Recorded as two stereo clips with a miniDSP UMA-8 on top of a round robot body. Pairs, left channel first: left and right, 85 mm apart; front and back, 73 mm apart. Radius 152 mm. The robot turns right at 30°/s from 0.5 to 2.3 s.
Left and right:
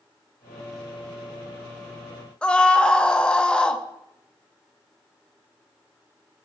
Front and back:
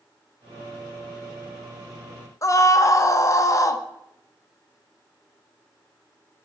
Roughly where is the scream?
Ahead.